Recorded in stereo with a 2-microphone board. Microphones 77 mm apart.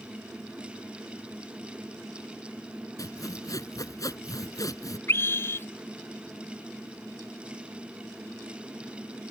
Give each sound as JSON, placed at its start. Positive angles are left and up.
{"t": 3.0, "sound": "sawing", "side_deg": 55}
{"t": 5.1, "sound": "a scream", "side_deg": 35}